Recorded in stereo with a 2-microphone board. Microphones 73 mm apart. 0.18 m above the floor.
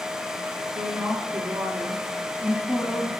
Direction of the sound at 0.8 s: 55° right (ahead or behind).